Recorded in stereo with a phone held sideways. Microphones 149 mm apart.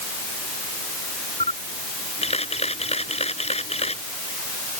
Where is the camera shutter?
45° left (ahead or behind).